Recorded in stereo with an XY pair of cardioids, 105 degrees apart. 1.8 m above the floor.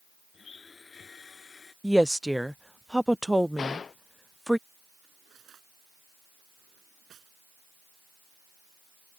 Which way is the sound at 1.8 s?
5° right.